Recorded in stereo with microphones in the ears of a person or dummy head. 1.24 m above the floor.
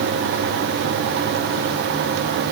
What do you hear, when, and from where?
Only background noise.